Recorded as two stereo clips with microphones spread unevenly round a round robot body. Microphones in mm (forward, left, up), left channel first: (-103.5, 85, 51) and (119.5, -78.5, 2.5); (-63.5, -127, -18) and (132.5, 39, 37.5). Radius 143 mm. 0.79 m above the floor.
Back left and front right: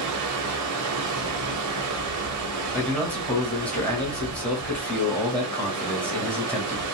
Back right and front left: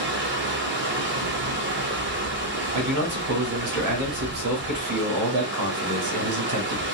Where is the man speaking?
55° left, 1.7 m.